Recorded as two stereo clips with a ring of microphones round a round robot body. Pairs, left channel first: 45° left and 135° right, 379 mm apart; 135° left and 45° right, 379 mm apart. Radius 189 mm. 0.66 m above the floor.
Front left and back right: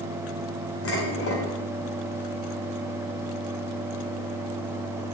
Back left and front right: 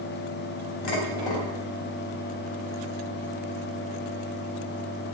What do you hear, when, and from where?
0.8 s dishes clattering: 100° left, 3 m